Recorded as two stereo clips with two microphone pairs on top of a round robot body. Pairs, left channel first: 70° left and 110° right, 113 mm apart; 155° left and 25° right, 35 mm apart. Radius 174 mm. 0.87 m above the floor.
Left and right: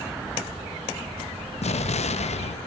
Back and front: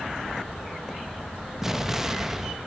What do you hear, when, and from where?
1.6 s an explosion: 50° left, 0.9 m